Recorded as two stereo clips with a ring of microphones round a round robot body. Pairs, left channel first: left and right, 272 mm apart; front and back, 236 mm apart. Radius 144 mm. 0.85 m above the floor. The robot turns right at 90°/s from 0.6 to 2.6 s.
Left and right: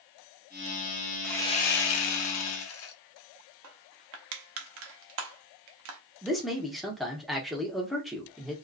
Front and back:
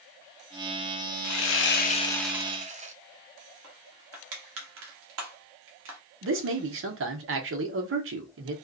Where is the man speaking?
Straight behind, 0.8 m.